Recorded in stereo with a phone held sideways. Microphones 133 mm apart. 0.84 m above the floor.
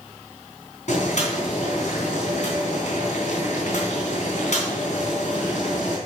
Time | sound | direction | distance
0.9 | boiling | 60° left (ahead or behind) | 3.5 m